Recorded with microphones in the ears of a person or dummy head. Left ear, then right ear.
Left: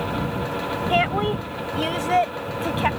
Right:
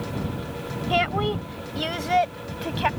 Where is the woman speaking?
Centre (ahead or behind); by 2.9 s 5° right (ahead or behind).